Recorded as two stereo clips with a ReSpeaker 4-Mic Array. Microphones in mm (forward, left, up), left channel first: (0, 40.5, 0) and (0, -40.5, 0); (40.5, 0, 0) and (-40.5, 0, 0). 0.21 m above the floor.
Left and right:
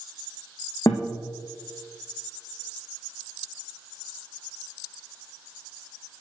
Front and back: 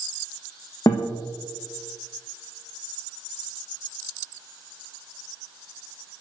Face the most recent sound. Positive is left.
turn(degrees=40)